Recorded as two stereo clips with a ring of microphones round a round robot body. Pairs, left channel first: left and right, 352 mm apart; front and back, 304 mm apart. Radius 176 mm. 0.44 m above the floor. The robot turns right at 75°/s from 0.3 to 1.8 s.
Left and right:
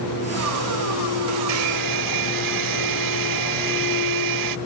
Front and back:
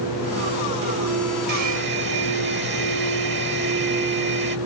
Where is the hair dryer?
145° right; by 4.6 s 120° right.